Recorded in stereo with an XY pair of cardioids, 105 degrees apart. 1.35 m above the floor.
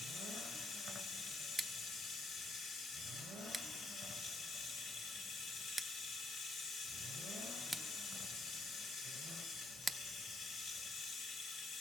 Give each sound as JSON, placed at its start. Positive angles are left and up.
{"t": 0.0, "sound": "running water", "azimuth_deg": 65, "distance_m": 2.0}
{"t": 1.6, "sound": "scissors", "azimuth_deg": -10, "distance_m": 0.7}